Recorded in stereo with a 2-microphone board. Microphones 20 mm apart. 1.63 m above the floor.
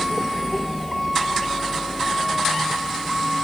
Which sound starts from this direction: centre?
A vehicle, at 0.0 s.